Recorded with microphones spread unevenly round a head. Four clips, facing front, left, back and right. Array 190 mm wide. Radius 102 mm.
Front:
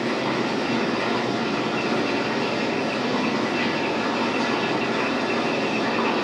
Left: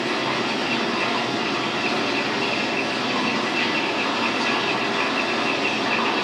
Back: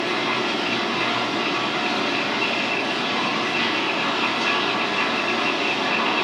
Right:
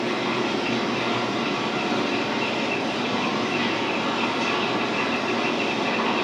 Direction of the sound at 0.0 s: 10° right.